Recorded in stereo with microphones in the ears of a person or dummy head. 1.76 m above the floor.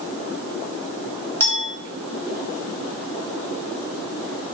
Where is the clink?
15° left (ahead or behind), 2.5 m.